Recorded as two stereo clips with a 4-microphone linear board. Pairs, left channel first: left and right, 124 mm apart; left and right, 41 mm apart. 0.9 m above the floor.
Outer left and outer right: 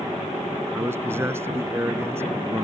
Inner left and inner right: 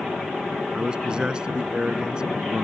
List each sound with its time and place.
0.7 s a man speaking: 20° right (ahead or behind)